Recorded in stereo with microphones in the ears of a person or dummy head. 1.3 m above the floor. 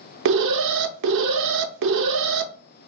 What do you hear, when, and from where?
0.2 s an alarm: 65° right (ahead or behind), 0.5 m